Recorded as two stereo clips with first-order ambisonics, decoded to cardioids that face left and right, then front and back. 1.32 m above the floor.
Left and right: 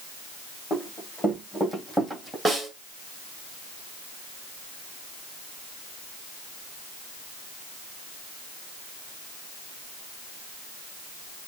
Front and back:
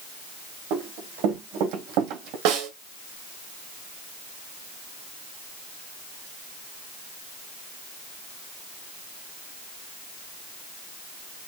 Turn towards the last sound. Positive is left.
turn(degrees=-175)